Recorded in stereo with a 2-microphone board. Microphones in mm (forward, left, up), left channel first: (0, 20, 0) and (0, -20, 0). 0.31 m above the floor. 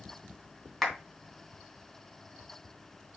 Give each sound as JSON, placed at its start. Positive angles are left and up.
{"t": 0.8, "sound": "a clap", "side_deg": 5, "distance_m": 3.0}